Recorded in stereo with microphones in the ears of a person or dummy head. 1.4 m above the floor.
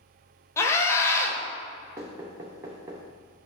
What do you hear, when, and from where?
0.6 s a scream: 15° left (ahead or behind), 1.1 m
2.0 s knocking: 15° right (ahead or behind), 0.7 m